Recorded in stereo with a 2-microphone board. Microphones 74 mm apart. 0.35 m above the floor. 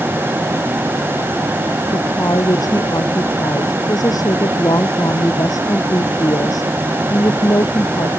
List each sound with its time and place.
1.9 s a woman speaking: 55° left (ahead or behind)